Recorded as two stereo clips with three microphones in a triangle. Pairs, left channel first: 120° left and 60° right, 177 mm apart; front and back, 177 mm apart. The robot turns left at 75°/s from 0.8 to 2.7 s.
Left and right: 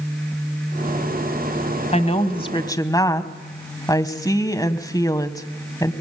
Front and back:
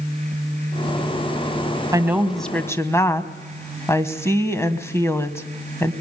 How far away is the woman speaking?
About 1.5 m.